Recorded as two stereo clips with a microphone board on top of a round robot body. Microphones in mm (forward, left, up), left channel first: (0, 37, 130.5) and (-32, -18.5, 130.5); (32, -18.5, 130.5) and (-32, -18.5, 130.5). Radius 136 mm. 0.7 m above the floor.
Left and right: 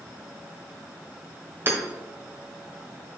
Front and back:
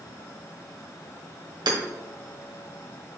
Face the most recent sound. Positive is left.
turn(degrees=-175)